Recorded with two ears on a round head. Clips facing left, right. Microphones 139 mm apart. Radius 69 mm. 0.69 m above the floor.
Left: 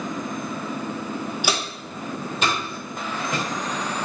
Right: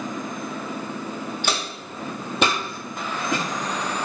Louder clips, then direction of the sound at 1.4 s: Left 1 dB; 10° left (ahead or behind).